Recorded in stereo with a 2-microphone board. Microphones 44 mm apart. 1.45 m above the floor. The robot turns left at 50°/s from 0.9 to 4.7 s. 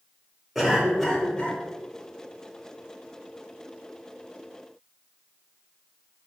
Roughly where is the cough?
Behind.